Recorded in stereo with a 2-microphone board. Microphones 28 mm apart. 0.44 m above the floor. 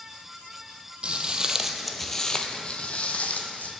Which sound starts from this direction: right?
Footsteps, at 1.0 s.